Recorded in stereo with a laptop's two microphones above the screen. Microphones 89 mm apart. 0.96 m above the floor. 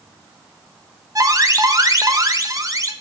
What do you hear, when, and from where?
1.1 s an alarm: 40° right (ahead or behind), 1.2 m